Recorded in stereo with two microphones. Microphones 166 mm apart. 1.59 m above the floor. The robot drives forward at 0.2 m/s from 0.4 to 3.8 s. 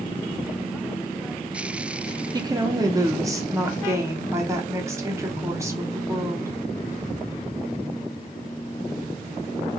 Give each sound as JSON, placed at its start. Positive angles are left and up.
{"t": 2.3, "sound": "a woman speaking", "side_deg": -25, "distance_m": 0.6}